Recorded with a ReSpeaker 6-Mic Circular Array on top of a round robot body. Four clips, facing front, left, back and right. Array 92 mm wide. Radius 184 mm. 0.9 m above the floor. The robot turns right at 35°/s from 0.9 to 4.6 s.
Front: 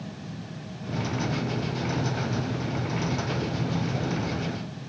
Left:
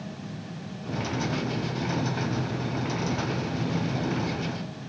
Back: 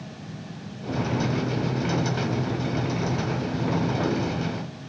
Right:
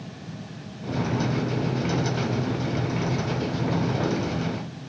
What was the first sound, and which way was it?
Only background noise.